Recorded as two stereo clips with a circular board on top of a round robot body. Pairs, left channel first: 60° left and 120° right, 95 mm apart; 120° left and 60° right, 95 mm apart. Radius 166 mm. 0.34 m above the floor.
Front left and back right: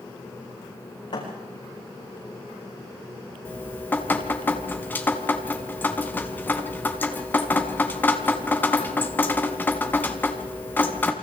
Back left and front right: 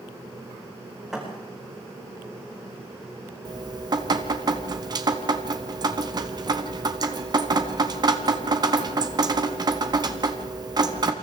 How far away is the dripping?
About 1.3 m.